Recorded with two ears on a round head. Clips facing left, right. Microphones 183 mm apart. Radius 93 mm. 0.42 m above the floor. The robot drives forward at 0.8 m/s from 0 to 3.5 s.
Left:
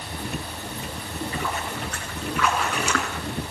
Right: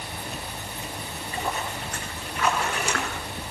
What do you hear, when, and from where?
1.0 s a splash: 50° left (ahead or behind), 7 m; by 3.3 s 60° left (ahead or behind), 6 m